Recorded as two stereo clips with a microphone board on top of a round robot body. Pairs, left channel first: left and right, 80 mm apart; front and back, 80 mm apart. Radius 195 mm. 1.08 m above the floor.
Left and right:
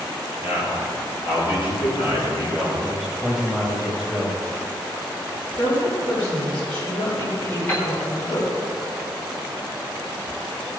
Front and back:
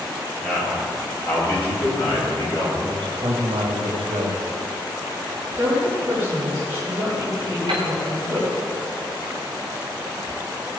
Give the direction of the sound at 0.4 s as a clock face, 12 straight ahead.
9 o'clock.